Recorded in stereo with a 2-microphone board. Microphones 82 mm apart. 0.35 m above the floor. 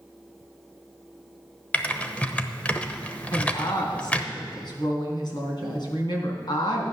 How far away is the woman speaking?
About 3.5 m.